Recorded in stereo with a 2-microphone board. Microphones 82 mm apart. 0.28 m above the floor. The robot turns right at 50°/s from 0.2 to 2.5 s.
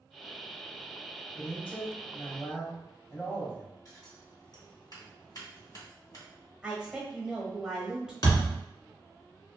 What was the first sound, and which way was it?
A man speaking, 10° left (ahead or behind).